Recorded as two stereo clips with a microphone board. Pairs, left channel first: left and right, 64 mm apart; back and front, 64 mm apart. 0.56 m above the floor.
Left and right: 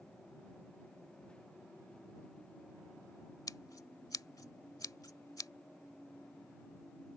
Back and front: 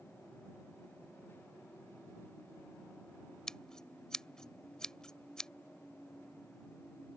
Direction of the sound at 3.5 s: 100° left.